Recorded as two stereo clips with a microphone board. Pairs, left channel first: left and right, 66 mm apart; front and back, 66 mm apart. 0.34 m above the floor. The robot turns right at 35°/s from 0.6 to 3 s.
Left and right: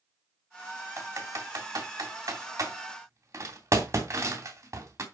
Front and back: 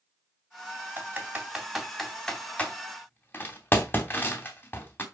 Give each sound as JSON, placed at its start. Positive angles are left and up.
{"t": 1.0, "sound": "typing on a keyboard", "azimuth_deg": -125, "distance_m": 2.5}